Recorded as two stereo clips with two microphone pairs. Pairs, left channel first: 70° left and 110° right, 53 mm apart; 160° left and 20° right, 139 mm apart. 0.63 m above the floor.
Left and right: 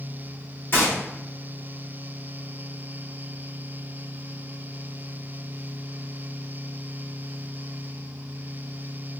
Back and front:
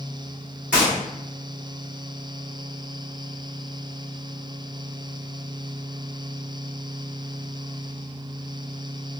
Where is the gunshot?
60° left, 1.2 m.